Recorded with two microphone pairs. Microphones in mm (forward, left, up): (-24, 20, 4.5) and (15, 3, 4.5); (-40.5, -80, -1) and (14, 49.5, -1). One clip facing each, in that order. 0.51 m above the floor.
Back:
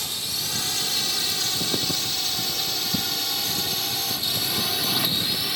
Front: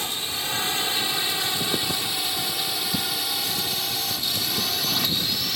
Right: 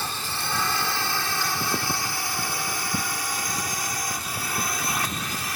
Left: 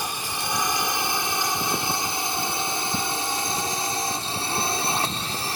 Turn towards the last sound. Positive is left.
turn(degrees=85)